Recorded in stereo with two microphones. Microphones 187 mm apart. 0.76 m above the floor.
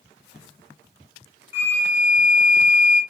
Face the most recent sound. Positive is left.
turn(degrees=-10)  # may be behind; listen again after turning